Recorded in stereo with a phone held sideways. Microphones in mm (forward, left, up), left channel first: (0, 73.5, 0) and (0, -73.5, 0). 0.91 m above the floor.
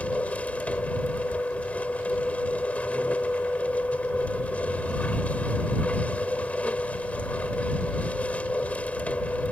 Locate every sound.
0.0 s a machine running: 10° left (ahead or behind)